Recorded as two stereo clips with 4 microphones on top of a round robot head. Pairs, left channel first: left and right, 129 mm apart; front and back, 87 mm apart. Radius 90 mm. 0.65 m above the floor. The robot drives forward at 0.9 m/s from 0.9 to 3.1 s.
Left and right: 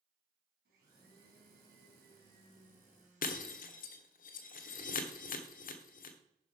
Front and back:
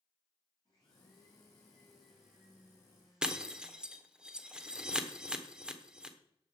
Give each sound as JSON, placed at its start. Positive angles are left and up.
{"t": 0.7, "sound": "a blender", "azimuth_deg": -65, "distance_m": 2.5}
{"t": 3.2, "sound": "breaking glass", "azimuth_deg": 100, "distance_m": 1.1}